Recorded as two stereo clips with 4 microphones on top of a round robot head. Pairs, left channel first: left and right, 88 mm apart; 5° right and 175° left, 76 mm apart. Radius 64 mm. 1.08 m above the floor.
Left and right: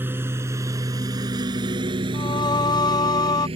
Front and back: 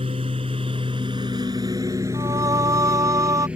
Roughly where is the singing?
Behind left.